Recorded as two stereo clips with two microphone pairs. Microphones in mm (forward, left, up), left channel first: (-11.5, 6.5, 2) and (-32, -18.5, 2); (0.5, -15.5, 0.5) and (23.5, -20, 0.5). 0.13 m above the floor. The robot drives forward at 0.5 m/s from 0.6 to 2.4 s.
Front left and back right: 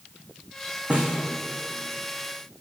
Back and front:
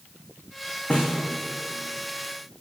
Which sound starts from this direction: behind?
A snare drum, at 0.9 s.